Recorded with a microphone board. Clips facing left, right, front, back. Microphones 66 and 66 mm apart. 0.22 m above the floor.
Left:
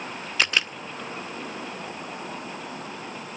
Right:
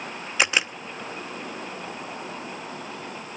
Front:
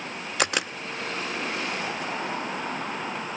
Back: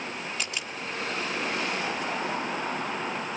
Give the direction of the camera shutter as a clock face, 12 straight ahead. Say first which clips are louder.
Right 2 dB, front 8 dB; 1 o'clock.